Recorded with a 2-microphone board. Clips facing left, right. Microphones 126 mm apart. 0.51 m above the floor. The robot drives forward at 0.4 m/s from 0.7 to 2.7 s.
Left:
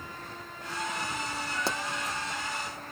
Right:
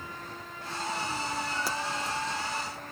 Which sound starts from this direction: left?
A pop, at 1.7 s.